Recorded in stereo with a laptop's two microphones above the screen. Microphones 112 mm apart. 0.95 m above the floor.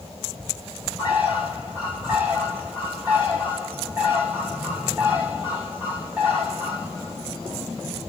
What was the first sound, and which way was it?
A bird, 15° right (ahead or behind).